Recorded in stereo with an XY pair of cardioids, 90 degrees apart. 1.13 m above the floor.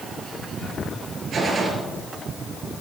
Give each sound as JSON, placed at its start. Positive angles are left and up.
{"t": 1.3, "sound": "a gunshot", "azimuth_deg": -55, "distance_m": 4.0}